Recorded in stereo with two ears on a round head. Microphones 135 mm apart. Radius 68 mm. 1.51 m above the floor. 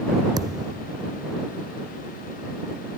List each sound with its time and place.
0.4 s a thud: 25° right (ahead or behind)